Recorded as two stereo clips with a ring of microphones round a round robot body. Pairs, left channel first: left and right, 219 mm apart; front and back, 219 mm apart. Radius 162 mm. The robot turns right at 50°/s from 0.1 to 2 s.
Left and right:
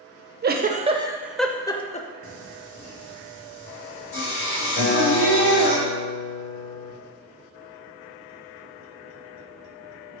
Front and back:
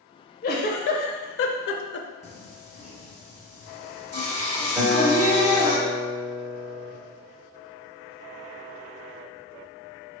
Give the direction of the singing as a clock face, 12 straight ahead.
10 o'clock.